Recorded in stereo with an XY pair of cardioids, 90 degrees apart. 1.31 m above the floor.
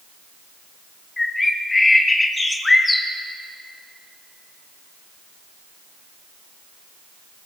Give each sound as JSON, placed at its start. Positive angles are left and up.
{"t": 1.2, "sound": "a bird", "azimuth_deg": 25, "distance_m": 2.5}